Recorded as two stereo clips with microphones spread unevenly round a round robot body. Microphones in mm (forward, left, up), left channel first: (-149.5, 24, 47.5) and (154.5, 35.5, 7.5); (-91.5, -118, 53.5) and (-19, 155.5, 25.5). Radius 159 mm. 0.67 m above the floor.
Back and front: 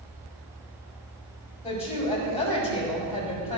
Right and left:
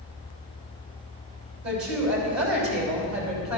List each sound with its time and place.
1.6 s a woman speaking: 110° left, 5.5 m